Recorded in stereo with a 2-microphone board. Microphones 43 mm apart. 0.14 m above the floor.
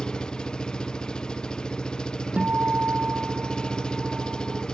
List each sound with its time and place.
0.0 s an engine running: 20° left (ahead or behind)
2.4 s a guitar: 40° right (ahead or behind)